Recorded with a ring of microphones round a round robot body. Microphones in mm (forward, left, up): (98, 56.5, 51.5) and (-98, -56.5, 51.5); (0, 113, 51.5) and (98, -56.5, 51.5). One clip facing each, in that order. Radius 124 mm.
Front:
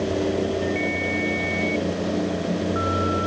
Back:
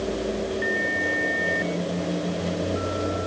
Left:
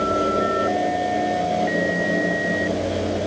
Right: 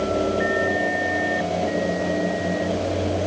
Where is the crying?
I don't hear crying.